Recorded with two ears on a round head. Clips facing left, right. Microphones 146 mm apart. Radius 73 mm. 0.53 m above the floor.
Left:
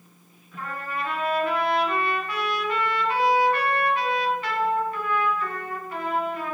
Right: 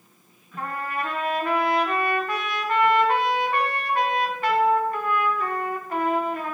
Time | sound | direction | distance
0.6 | a trumpet | 45° right (ahead or behind) | 3.5 m